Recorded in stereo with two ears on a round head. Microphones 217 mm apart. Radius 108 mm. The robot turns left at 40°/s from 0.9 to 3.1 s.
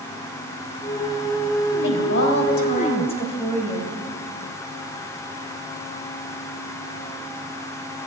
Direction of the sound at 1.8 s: 80° left.